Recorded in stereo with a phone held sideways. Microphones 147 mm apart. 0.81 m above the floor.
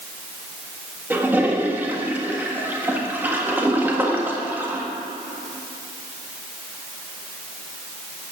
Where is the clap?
No clap in this recording.